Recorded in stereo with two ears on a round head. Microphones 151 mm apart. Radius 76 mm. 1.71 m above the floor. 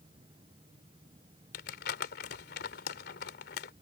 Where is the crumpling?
60° left (ahead or behind).